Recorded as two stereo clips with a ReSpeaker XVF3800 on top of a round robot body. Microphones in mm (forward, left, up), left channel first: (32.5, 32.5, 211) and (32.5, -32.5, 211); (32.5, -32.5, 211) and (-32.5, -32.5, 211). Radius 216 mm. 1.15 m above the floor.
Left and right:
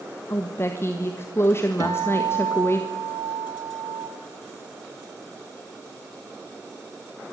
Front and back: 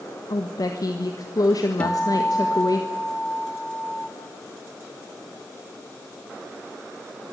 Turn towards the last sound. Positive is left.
turn(degrees=-70)